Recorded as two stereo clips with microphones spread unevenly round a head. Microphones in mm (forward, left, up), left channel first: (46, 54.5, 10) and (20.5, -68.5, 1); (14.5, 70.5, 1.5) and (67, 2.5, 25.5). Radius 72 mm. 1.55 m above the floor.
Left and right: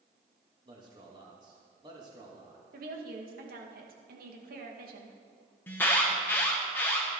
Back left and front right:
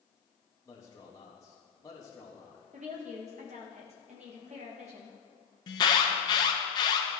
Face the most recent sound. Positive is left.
turn(degrees=155)